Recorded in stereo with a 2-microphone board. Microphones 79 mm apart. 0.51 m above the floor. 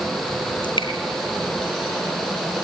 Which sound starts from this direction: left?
Dripping, at 0.6 s.